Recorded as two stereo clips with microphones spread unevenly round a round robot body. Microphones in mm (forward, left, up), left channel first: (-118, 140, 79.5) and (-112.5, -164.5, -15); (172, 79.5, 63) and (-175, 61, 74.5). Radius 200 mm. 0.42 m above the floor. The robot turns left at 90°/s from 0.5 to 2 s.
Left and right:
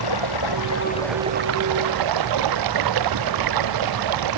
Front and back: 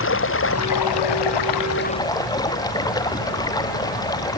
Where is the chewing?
I don't hear chewing.